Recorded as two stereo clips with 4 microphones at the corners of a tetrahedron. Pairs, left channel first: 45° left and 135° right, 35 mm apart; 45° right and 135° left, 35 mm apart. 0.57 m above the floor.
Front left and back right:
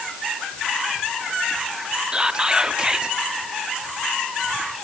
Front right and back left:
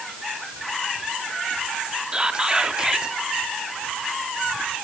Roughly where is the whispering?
Behind.